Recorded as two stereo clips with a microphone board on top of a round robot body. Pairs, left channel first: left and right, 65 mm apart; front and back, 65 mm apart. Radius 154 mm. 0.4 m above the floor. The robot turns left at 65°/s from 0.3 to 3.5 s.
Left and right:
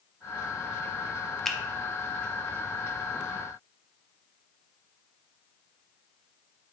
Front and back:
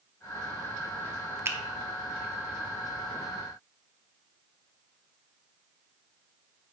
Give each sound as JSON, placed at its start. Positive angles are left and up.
{"t": 1.4, "sound": "a finger snap", "azimuth_deg": 175, "distance_m": 0.7}